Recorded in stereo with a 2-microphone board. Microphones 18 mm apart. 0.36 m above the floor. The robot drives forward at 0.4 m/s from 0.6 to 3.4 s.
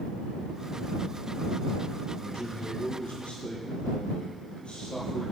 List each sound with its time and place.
2.2 s a man speaking: 75° left (ahead or behind), 8 m